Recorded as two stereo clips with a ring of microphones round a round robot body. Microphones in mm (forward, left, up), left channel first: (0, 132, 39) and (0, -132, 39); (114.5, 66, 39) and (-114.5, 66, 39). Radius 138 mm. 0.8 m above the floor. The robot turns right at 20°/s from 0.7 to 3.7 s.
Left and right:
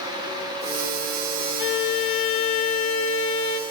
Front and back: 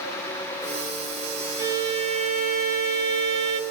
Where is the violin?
105° left, 0.8 m; by 3.6 s 145° left, 0.8 m.